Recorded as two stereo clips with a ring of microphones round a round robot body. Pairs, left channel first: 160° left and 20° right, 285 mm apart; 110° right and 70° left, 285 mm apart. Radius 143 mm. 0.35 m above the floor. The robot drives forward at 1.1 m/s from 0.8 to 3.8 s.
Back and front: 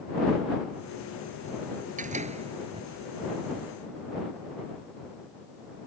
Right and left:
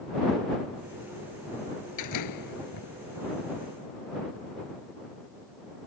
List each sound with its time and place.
2.0 s a door slam: 85° right; by 2.9 s 100° right